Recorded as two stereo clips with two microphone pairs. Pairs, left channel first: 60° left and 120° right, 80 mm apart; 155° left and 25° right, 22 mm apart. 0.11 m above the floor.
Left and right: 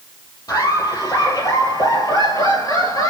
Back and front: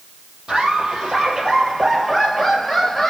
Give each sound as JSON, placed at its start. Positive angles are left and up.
{"t": 0.5, "sound": "laughter", "azimuth_deg": 20, "distance_m": 3.5}